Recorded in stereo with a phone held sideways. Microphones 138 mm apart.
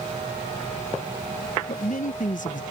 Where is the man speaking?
70° left (ahead or behind).